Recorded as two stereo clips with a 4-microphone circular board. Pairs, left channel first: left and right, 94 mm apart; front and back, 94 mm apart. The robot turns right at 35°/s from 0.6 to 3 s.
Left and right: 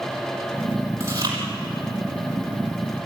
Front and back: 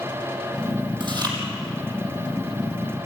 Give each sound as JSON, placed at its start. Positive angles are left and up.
{"t": 1.0, "sound": "chewing", "azimuth_deg": -150, "distance_m": 5.0}